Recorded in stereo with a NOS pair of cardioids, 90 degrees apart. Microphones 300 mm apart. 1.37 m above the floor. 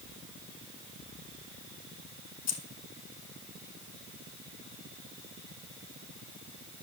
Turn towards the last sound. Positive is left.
turn(degrees=60)